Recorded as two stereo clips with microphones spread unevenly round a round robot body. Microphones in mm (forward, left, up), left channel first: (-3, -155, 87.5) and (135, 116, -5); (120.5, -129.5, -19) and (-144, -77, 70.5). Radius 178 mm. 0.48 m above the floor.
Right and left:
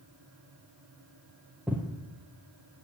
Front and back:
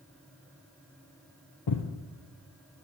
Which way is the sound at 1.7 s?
30° right.